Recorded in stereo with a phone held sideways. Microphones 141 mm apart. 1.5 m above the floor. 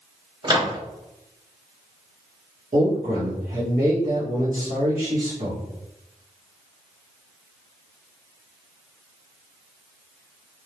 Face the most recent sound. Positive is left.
turn(degrees=-75)  # may be behind; listen again after turning